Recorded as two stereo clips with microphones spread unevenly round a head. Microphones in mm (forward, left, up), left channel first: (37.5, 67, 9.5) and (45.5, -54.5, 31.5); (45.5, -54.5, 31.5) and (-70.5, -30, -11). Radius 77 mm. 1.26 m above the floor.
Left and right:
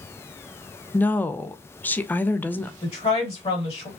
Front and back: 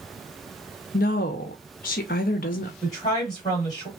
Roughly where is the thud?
I don't hear a thud.